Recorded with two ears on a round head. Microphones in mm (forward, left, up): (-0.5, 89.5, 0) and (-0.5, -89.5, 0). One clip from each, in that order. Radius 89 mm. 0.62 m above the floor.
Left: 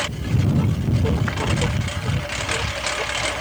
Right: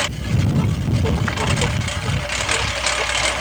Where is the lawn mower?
20° right (ahead or behind).